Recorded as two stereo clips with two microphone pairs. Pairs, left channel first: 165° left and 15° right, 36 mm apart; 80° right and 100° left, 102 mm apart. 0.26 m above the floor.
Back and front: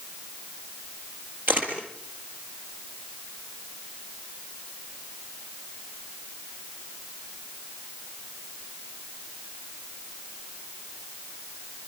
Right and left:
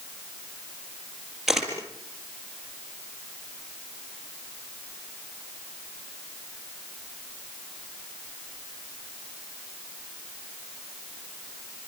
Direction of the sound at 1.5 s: 15° left.